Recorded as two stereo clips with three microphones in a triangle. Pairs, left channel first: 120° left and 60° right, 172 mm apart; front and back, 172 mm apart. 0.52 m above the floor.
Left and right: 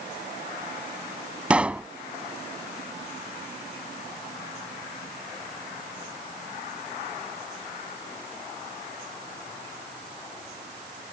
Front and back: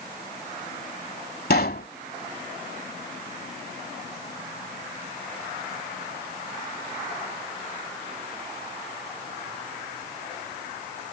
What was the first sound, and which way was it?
A pop, 25° left.